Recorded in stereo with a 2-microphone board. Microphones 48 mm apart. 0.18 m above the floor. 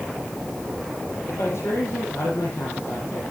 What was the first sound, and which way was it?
A man speaking, 75° left (ahead or behind).